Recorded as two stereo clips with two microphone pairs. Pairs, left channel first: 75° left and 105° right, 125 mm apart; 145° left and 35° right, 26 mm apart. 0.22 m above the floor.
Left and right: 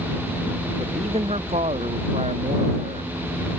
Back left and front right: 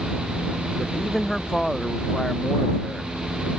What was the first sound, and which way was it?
A man speaking, 145° right.